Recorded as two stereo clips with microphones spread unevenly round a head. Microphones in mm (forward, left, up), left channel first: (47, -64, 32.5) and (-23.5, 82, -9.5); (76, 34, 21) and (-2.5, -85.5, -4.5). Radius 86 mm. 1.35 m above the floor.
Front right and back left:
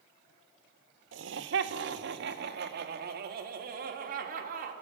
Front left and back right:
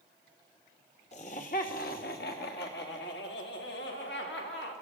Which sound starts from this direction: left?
Laughter, at 1.1 s.